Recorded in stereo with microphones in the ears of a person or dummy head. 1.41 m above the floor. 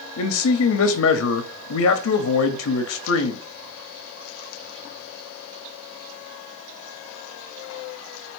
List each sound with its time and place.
0.2 s a man speaking: 80° left, 0.5 m